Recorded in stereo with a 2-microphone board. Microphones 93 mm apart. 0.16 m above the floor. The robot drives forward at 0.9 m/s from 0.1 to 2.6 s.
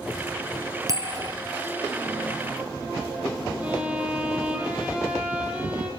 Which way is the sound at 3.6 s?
15° right (ahead or behind).